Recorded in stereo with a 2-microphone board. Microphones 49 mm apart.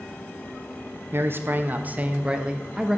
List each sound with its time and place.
1.1 s a man speaking: 55° right (ahead or behind), 1.3 m; by 3.0 s 10° right (ahead or behind), 1.8 m